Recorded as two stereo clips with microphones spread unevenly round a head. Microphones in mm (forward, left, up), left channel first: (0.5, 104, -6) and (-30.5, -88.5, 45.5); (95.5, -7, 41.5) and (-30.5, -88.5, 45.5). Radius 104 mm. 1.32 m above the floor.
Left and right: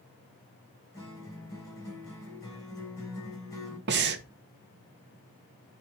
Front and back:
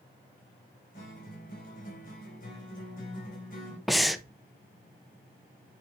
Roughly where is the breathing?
Ahead right.